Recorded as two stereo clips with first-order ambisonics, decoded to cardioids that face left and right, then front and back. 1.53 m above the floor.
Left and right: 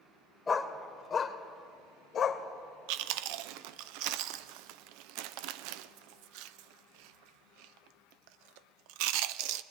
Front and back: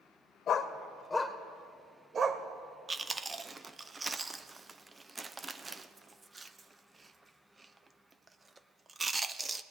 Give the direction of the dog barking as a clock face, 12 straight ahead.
11 o'clock.